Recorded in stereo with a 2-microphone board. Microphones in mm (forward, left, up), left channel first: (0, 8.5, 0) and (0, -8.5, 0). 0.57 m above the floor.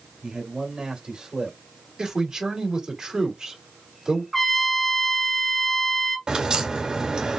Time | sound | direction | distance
0.2 | a man speaking | 65° right (ahead or behind) | 2.0 m
2.0 | a man speaking | 45° right (ahead or behind) | 2 m
4.3 | a trumpet | 20° left (ahead or behind) | 0.6 m
6.3 | a crack | 65° right (ahead or behind) | 1.9 m